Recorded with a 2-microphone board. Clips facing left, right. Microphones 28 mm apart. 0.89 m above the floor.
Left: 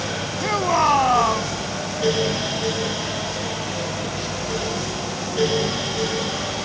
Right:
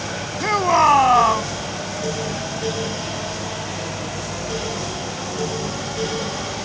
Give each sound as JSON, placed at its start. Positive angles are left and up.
{"t": 0.4, "sound": "a shout", "side_deg": -15}